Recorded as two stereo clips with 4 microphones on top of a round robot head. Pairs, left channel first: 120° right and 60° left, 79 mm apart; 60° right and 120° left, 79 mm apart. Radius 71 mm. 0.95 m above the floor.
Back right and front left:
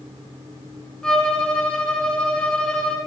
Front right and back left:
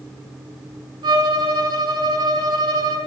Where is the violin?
155° left, 5.5 m.